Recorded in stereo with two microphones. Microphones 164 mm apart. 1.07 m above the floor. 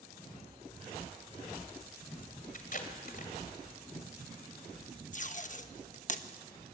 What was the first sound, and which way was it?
Tape being pulled, 60° left (ahead or behind).